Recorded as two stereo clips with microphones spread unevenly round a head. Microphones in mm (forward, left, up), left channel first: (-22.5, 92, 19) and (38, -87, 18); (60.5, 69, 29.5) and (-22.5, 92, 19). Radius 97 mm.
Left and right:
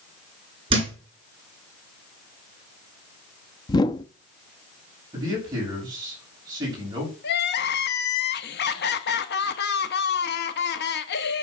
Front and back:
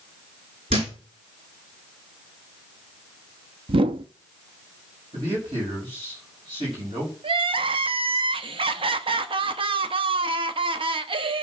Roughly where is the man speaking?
Behind right.